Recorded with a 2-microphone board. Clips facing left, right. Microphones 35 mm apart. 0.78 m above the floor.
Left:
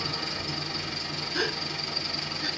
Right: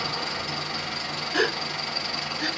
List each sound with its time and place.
0.0 s an engine running: 50° right (ahead or behind), 4 m
1.3 s a gasp: 80° right, 2.5 m